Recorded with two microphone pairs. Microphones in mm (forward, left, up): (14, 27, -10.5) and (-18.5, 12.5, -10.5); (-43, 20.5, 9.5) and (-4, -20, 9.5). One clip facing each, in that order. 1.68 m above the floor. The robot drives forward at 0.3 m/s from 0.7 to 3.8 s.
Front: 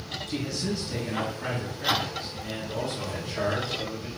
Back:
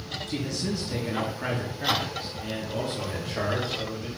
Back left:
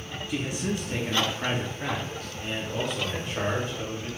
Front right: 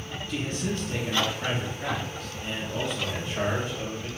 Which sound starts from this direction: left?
A man speaking, at 0.3 s.